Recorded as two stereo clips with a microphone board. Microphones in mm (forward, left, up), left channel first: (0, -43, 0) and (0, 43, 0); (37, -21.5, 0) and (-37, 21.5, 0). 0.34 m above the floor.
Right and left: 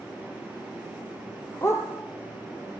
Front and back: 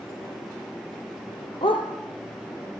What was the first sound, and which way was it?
A dog barking, 30° right.